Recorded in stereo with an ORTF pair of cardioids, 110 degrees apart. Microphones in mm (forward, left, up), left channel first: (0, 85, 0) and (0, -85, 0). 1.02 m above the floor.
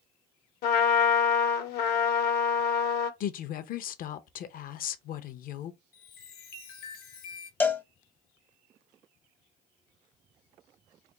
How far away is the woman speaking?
About 0.7 m.